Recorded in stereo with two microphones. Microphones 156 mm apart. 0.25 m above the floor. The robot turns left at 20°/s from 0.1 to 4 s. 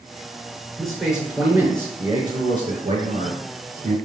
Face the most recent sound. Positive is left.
turn(degrees=-60)